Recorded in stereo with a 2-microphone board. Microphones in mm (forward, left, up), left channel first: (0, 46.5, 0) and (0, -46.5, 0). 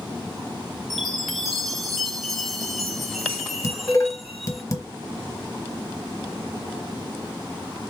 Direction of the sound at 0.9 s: Centre (ahead or behind).